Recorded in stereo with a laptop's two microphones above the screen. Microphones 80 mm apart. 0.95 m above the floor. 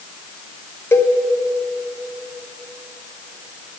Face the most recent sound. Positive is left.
turn(degrees=30)  # may be behind; listen again after turning